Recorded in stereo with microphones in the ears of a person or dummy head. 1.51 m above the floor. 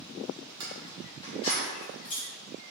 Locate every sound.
0.6 s keys jangling: 20° right (ahead or behind), 0.7 m; by 2.3 s 50° left (ahead or behind), 1.7 m